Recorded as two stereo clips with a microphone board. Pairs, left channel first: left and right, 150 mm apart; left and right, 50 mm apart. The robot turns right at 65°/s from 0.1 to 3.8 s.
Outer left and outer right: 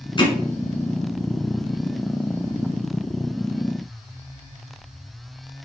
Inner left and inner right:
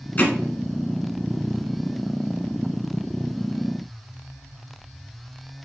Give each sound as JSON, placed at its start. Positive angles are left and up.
{"t": 0.2, "sound": "hammering", "side_deg": 35, "distance_m": 1.2}